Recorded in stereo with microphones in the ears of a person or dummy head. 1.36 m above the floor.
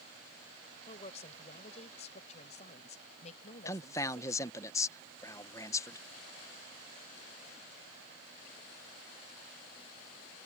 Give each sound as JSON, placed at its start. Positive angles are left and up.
{"t": 0.9, "sound": "a woman speaking", "side_deg": 35}
{"t": 3.6, "sound": "a man speaking", "side_deg": 15}